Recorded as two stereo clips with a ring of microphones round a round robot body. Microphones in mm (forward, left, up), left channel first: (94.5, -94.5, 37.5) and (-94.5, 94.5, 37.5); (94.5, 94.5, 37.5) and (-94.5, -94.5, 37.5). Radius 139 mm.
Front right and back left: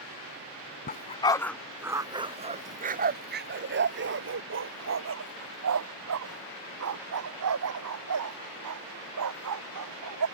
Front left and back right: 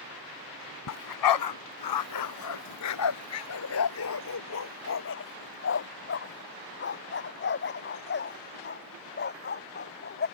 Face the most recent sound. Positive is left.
turn(degrees=100)